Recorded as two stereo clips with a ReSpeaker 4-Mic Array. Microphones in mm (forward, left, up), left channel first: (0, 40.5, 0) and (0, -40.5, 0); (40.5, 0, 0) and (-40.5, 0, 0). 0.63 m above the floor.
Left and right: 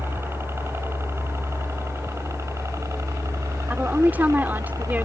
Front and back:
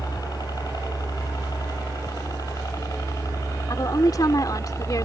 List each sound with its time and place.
0.0 s a helicopter: 30° right; by 5.0 s 45° right
3.7 s a woman speaking: 25° right